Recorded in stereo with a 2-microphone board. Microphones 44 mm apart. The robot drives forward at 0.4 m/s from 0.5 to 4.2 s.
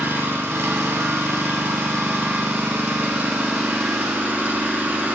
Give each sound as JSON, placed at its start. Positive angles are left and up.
{"t": 0.0, "sound": "an engine running", "side_deg": -70, "distance_m": 1.1}